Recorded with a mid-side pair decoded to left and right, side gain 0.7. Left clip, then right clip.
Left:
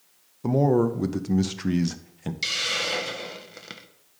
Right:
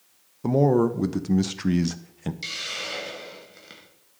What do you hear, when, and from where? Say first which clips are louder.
0.4 s a man speaking: right 1 dB; 5° right, 0.6 m
2.4 s a hiss: left 6 dB; 35° left, 0.8 m